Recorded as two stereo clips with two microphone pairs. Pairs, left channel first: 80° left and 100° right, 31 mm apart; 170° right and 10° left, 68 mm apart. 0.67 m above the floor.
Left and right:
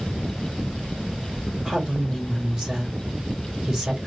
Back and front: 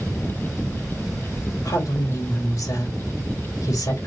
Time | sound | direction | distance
1.6 | a woman speaking | 160° right | 2.5 m